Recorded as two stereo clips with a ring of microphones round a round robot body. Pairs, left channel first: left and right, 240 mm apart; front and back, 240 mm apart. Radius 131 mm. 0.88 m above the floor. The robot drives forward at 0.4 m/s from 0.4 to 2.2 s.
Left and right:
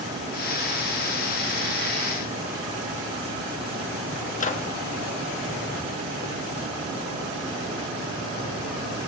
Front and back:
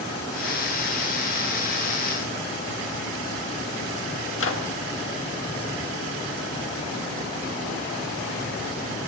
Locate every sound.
4.4 s a microwave: 30° left, 1.3 m